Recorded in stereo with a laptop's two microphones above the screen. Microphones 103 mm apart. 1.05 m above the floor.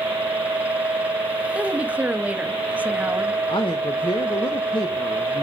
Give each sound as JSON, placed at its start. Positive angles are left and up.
{"t": 0.0, "sound": "a fan", "side_deg": -15, "distance_m": 0.9}
{"t": 1.6, "sound": "a woman speaking", "side_deg": -15, "distance_m": 0.9}
{"t": 3.5, "sound": "a man speaking", "side_deg": 55, "distance_m": 0.8}